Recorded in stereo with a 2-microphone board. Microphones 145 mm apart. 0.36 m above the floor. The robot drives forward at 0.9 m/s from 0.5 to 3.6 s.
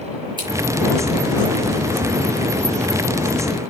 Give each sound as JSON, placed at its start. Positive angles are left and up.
{"t": 0.4, "sound": "scissors", "side_deg": -30, "distance_m": 6.5}